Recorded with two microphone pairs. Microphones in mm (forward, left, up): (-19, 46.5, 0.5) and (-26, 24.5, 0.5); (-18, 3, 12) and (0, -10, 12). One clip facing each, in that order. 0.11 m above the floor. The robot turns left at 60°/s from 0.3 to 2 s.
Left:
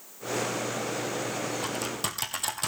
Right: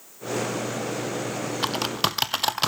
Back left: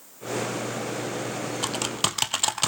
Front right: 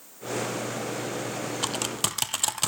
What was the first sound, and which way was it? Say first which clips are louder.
Typing on a keyboard: right 7 dB, back left 3 dB; 120° right.